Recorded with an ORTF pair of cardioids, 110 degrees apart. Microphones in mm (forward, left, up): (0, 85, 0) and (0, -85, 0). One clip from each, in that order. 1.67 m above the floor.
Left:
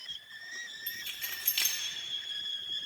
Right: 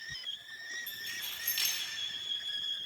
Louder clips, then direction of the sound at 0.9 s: Left 1 dB; 40° left.